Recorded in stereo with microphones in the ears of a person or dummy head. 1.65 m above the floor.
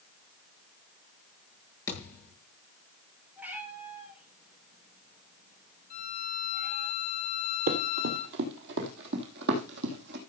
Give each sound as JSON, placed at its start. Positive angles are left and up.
{"t": 1.9, "sound": "a thud", "side_deg": 20, "distance_m": 8.0}
{"t": 3.4, "sound": "a cat meowing", "side_deg": -5, "distance_m": 6.0}
{"t": 5.9, "sound": "a violin", "side_deg": 40, "distance_m": 2.0}
{"t": 7.7, "sound": "running footsteps", "side_deg": -50, "distance_m": 2.5}